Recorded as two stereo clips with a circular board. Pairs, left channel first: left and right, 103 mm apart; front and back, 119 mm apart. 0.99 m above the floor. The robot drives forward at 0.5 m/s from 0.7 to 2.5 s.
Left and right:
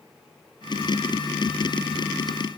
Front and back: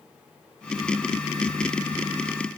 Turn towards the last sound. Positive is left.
No sound to turn to.